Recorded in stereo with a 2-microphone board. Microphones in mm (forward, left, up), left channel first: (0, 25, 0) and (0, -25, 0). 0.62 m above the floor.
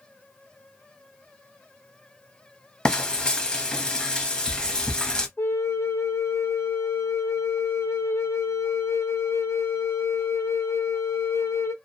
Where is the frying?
15° left (ahead or behind), 0.8 m.